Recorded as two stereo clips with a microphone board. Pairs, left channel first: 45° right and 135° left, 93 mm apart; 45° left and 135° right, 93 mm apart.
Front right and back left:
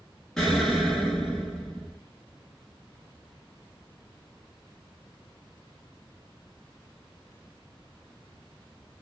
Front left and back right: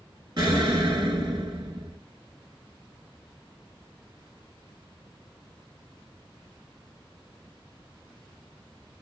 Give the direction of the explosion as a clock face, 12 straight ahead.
4 o'clock.